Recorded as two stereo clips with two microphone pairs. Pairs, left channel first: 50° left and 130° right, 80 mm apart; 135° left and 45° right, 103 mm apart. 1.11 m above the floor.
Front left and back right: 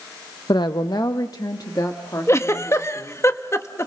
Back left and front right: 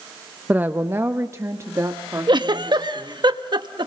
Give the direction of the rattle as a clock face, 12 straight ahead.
I don't hear a rattle.